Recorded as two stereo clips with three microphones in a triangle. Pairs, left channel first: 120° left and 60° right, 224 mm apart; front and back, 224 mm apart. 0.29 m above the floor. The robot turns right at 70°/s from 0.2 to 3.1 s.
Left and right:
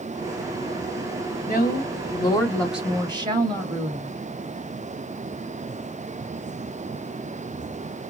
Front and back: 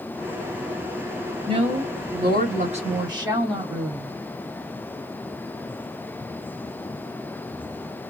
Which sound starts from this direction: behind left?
A woman speaking, at 1.5 s.